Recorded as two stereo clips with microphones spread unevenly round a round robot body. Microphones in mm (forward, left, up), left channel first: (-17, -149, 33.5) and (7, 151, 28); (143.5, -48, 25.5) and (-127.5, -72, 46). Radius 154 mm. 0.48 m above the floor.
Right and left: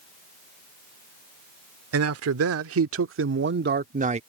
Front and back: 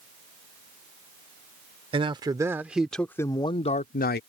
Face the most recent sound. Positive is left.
turn(degrees=30)